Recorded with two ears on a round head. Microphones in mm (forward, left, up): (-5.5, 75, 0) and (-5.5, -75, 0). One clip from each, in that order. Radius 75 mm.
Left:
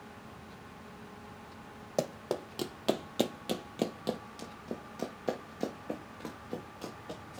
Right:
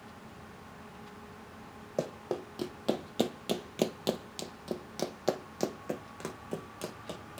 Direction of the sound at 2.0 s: 45° left (ahead or behind).